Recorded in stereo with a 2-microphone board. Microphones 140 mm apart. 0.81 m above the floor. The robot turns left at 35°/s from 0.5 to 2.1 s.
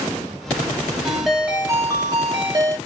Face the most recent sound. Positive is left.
turn(degrees=-35)